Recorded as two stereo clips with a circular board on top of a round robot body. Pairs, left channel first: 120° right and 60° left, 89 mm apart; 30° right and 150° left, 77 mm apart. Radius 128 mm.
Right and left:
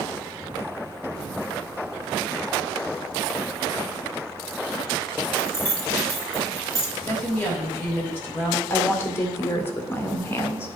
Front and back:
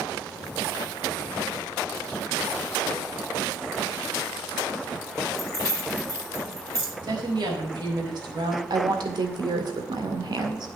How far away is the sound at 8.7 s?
About 2.0 m.